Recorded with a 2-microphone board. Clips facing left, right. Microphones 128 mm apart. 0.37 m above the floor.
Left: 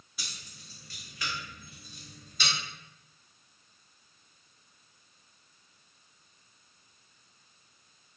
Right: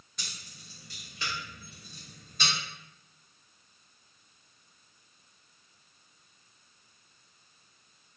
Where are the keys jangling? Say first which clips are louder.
Even; 5° left (ahead or behind), 0.8 m; by 2.5 s 50° right (ahead or behind), 1.4 m.